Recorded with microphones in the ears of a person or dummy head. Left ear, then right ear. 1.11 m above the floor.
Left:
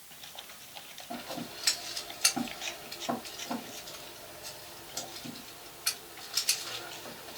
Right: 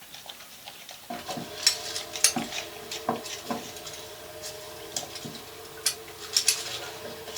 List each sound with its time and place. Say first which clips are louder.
1.1 s scissors: right 5 dB; 60° right (ahead or behind), 1.7 m